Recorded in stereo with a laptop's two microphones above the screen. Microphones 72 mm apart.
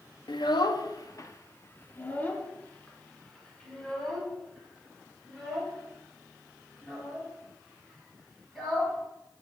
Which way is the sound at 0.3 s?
80° left.